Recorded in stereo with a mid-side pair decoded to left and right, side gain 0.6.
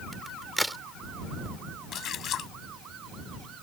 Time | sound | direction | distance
0.1 | a crack | 5° right | ?
1.9 | a splash | 50° left | ?